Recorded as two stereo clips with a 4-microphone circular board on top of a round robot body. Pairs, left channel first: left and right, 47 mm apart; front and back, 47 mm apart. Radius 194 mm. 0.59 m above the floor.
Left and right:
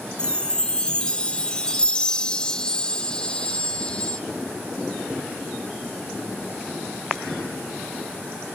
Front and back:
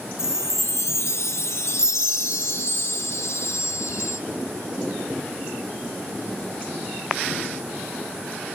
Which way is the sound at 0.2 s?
20° left.